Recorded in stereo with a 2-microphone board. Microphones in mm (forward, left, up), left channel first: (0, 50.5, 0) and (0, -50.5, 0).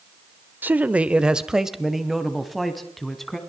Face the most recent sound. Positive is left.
turn(degrees=0)  # may be behind; listen again after turning